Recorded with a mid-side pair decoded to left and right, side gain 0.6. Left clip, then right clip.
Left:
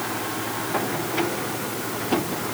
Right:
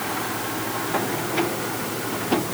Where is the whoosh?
No whoosh in this recording.